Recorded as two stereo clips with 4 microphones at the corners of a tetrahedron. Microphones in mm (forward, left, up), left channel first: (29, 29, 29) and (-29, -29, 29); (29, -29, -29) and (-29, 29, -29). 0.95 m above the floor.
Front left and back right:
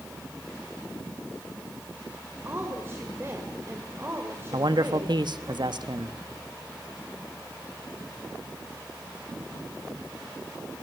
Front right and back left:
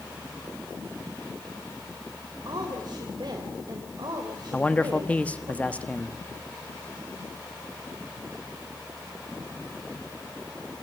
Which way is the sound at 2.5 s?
165° left.